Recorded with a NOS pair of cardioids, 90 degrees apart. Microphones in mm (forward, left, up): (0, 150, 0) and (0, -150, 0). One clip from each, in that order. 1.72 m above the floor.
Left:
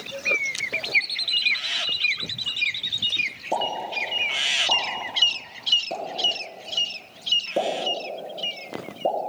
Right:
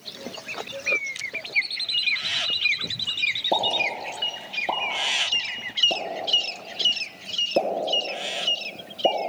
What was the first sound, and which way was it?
A pop, 25° right.